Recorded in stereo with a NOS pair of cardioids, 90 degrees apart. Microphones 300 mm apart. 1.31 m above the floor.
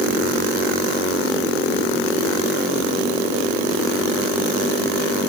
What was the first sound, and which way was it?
Only background noise.